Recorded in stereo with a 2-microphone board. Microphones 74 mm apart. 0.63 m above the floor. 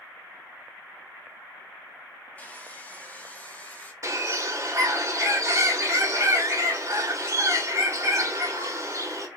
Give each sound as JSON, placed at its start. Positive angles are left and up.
{"t": 2.4, "sound": "sawing", "side_deg": 20, "distance_m": 0.7}
{"t": 4.0, "sound": "a bird", "side_deg": -40, "distance_m": 0.8}